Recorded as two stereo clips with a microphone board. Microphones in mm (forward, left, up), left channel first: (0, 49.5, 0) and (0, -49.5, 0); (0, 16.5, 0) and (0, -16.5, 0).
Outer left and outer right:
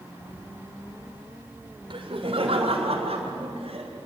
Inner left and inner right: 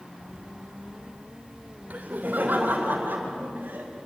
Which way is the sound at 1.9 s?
60° right (ahead or behind).